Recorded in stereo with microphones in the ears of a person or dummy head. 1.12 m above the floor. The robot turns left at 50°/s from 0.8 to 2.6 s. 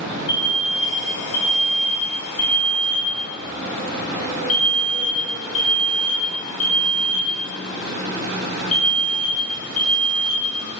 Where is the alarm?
150° left, 1.8 m; by 10.8 s 60° left, 1.8 m.